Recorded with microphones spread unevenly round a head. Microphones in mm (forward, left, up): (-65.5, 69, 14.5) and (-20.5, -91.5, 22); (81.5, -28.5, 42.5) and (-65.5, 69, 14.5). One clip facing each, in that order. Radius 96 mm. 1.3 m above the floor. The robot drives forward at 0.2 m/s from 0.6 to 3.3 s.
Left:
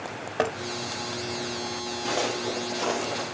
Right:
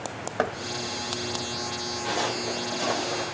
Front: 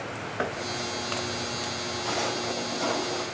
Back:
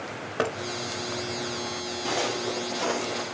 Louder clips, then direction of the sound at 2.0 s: Left 1 dB, back 2 dB; 130° left.